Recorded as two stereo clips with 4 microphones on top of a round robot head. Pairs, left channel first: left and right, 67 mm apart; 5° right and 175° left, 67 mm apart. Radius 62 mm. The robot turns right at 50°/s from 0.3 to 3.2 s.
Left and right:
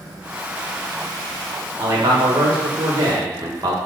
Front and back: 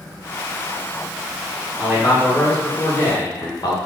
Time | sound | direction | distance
1.8 | a man speaking | 120° right | 1.4 m